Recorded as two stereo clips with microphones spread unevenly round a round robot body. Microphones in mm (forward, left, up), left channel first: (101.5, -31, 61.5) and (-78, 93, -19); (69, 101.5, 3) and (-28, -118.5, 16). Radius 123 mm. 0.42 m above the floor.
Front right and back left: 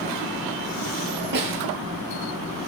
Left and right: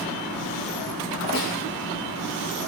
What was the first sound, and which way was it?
A snare drum, 110° left.